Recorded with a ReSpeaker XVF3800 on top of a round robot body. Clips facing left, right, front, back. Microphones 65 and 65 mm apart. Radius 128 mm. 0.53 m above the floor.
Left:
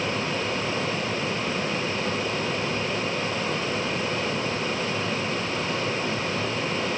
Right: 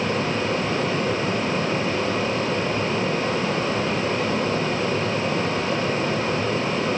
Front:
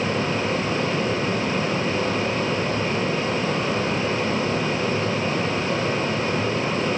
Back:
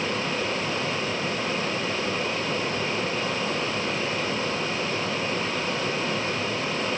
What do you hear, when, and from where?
Only background noise.